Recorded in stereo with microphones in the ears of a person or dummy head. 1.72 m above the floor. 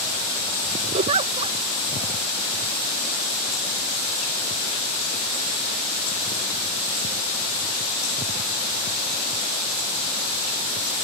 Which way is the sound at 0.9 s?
35° right (ahead or behind).